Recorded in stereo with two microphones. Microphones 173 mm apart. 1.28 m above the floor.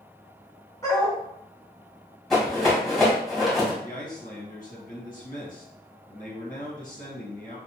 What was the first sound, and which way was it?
A dog barking, 20° left (ahead or behind).